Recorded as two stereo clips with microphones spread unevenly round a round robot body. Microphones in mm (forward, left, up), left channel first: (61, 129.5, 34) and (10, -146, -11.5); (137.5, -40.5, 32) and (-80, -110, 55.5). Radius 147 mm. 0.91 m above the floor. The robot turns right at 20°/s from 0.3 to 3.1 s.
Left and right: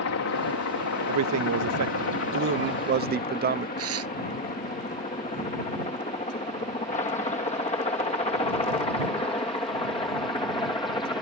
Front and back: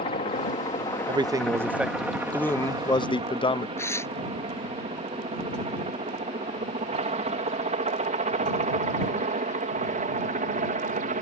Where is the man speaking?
90° right; by 3.7 s 50° right.